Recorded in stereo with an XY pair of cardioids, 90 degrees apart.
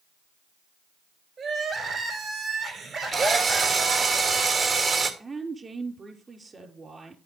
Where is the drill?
55° right, 2.5 m.